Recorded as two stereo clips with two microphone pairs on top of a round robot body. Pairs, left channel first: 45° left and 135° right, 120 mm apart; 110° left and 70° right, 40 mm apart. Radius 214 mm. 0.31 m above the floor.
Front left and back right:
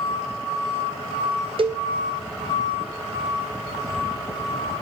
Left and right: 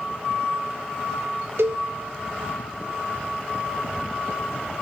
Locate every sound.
1.6 s a cowbell: 90° right, 0.5 m